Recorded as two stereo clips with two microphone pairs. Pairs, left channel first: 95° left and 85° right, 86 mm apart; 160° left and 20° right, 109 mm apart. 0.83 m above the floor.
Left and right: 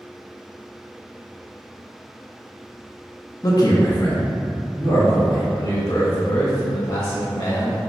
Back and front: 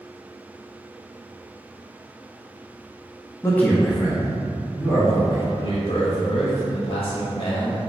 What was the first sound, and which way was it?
A man speaking, 115° left.